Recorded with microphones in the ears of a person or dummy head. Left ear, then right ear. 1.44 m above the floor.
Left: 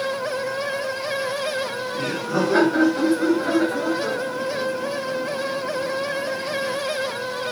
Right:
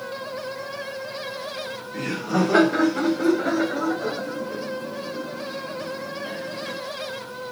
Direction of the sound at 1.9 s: 25° right (ahead or behind).